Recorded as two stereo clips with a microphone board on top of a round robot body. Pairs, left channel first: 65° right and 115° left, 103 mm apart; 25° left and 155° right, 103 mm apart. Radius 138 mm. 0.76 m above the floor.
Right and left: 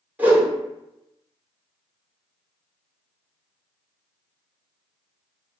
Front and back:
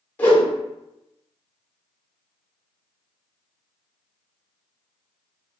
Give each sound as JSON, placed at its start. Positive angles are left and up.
{"t": 0.2, "sound": "a whoosh", "azimuth_deg": 65, "distance_m": 1.1}